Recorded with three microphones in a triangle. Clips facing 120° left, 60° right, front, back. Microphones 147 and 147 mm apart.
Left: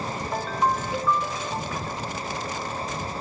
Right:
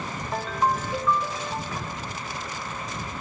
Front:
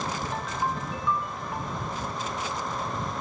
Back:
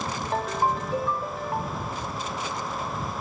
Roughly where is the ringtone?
Behind right.